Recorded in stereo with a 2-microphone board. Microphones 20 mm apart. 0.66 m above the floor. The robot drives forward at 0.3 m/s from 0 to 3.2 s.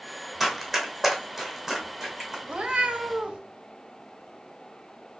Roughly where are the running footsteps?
Centre.